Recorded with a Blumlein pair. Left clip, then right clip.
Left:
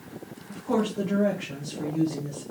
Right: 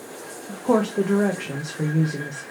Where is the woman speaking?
30° right, 0.7 m.